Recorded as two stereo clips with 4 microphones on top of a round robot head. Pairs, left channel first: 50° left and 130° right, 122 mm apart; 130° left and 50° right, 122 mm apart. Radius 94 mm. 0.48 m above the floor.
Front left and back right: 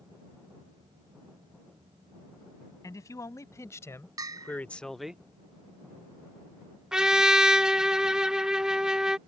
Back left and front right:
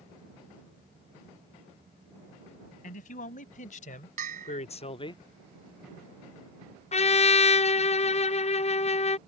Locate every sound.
2.8 s a man speaking: 115° left; by 5.2 s 155° left
4.2 s a bell: 65° right
6.9 s a trumpet: 150° left